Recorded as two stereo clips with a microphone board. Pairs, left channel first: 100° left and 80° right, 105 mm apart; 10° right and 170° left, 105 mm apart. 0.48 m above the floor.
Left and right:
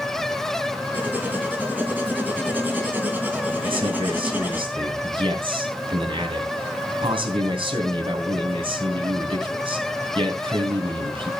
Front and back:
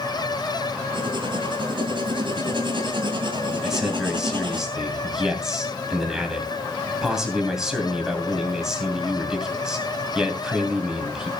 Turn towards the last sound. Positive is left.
turn(degrees=-105)